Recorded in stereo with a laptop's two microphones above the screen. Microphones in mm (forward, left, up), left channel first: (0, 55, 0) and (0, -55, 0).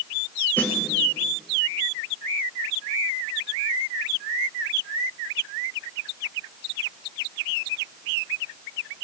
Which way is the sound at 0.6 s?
20° left (ahead or behind).